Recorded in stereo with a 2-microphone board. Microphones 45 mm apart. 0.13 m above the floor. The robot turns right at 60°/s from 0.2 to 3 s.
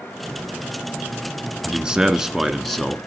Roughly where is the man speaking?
Right.